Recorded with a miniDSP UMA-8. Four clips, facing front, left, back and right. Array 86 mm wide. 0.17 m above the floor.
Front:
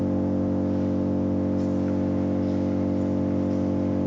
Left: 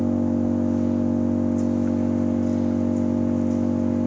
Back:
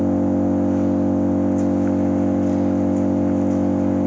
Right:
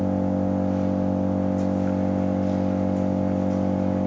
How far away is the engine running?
About 3.5 m.